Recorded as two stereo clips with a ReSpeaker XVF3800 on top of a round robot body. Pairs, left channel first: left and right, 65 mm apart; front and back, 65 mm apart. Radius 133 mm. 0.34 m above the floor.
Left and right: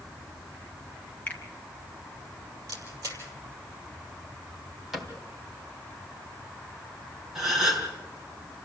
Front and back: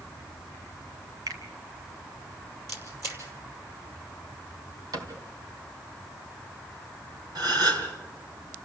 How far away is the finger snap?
About 2.5 m.